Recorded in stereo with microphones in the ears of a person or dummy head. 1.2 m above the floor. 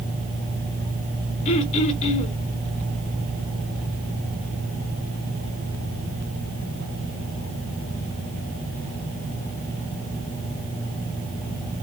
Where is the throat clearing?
30° left (ahead or behind), 0.9 m.